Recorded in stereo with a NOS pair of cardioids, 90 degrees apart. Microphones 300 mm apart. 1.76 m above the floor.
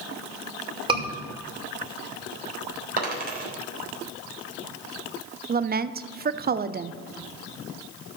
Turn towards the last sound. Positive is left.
turn(degrees=-30)